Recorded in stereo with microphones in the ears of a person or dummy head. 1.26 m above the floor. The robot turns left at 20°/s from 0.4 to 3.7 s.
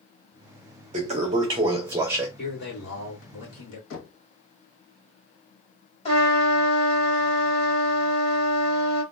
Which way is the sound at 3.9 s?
75° left (ahead or behind).